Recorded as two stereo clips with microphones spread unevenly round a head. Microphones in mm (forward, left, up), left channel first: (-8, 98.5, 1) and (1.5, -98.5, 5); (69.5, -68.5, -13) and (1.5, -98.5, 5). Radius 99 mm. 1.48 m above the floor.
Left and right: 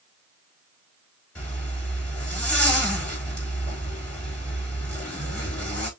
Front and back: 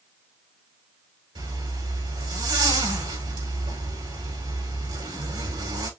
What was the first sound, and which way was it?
A zipper, 175° left.